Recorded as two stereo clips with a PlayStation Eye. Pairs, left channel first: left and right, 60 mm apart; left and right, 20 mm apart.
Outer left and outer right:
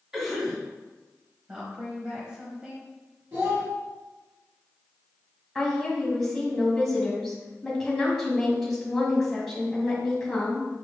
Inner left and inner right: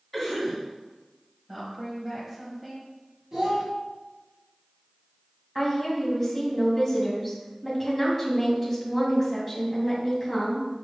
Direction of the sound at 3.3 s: 45° right (ahead or behind).